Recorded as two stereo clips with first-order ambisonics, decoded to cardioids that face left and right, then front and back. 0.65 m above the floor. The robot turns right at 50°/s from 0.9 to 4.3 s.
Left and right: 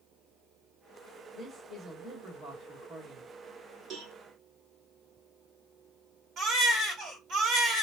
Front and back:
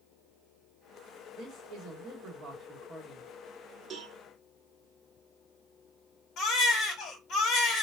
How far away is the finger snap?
I don't hear a finger snap.